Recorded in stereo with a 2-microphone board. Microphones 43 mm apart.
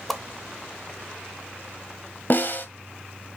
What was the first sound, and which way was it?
A whoosh, 5° left (ahead or behind).